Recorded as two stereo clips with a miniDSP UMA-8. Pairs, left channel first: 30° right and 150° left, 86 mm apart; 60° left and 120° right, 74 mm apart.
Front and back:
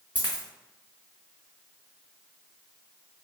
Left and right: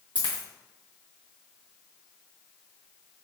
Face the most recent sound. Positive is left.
turn(degrees=-100)